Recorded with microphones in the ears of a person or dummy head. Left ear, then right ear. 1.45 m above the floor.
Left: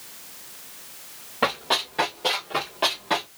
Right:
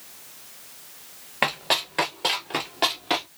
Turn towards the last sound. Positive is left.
turn(degrees=-30)  # may be behind; listen again after turning